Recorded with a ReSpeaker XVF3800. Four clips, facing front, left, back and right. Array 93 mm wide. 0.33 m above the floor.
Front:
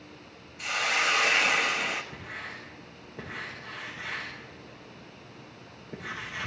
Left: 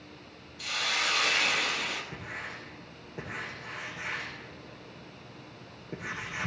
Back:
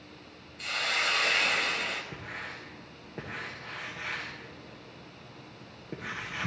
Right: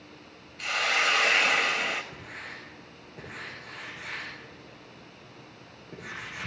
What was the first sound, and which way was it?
A hiss, 70° right.